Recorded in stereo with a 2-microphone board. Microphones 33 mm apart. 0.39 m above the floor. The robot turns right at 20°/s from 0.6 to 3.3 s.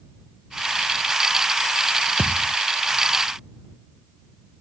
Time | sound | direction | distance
2.2 | a thud | 45° right (ahead or behind) | ?